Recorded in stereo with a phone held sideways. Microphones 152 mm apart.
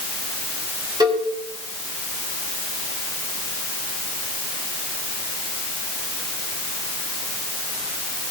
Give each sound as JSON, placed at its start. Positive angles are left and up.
{"t": 1.0, "sound": "a cowbell", "side_deg": -25, "distance_m": 3.5}